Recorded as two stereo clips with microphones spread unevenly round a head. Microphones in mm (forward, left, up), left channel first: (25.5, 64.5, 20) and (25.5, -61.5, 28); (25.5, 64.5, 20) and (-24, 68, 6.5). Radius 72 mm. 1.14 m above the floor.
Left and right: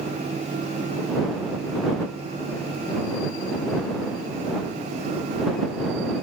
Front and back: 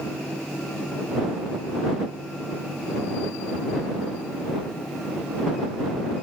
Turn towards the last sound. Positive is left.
No sound to turn to.